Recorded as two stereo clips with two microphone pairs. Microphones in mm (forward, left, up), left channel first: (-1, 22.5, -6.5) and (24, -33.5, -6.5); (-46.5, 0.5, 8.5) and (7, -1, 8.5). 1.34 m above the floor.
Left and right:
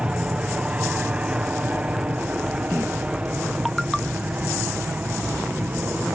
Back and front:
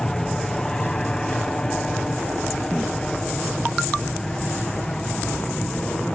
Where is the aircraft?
115° right; by 6.2 s 110° right.